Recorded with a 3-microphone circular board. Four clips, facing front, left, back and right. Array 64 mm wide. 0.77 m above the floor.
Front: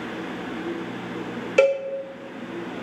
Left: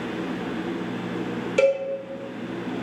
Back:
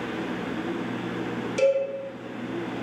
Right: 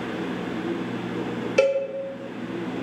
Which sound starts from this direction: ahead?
A cowbell, at 1.6 s.